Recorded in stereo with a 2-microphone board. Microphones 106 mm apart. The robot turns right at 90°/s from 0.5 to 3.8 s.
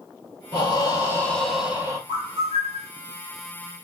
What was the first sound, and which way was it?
Breathing, 90° left.